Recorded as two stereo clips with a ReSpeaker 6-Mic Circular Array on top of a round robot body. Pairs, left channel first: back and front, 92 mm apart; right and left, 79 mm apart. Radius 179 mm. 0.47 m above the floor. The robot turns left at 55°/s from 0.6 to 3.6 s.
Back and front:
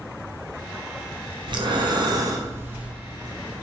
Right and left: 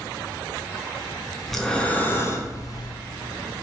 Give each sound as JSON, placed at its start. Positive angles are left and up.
{"t": 1.5, "sound": "breathing", "azimuth_deg": 0, "distance_m": 0.6}